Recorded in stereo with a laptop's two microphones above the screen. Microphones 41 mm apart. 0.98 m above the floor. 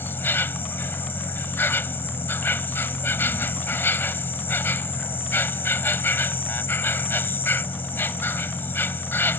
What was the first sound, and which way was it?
An insect, 65° left (ahead or behind).